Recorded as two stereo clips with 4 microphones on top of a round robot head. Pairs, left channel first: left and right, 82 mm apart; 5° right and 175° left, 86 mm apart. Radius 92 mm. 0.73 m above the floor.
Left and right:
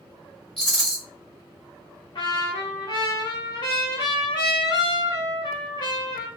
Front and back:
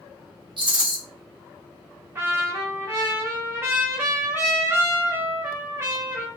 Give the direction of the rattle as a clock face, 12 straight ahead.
6 o'clock.